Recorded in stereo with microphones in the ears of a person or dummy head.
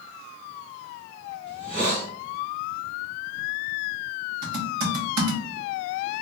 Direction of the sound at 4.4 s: 55° right (ahead or behind).